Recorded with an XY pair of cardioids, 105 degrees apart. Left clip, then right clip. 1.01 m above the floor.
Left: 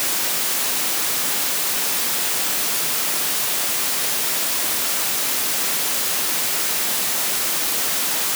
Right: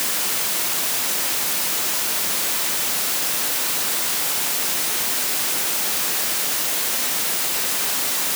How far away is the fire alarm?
I don't hear a fire alarm.